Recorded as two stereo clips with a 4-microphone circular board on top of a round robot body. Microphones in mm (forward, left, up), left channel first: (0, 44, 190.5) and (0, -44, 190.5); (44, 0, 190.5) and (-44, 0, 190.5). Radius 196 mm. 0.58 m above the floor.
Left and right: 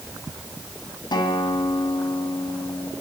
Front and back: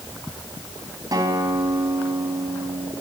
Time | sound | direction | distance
1.1 | a guitar | 130° left | 3.5 m